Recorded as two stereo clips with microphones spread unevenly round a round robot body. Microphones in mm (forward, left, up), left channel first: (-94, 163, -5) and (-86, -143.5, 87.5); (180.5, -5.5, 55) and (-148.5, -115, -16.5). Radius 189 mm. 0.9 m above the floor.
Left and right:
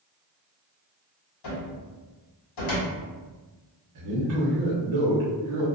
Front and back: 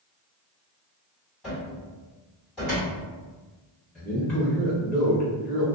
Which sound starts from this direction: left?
A cupboard door, at 1.4 s.